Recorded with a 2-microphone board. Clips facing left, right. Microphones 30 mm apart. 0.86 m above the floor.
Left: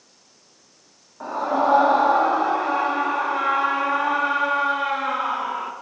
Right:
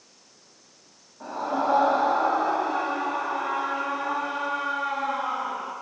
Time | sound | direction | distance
1.2 | a scream | 40° left (ahead or behind) | 2.0 m